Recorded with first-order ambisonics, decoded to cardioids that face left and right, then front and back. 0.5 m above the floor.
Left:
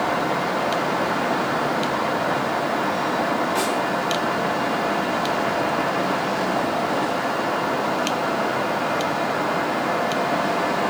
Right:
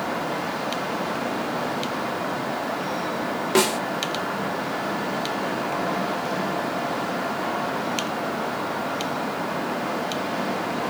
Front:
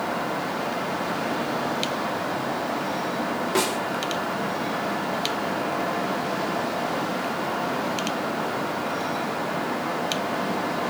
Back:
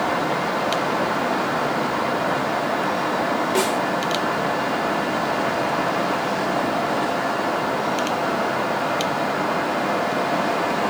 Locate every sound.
3.5 s a snare drum: 95° right, 0.6 m